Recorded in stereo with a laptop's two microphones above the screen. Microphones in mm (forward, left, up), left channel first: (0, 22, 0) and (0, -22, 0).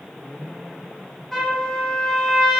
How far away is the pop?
No pop in this recording.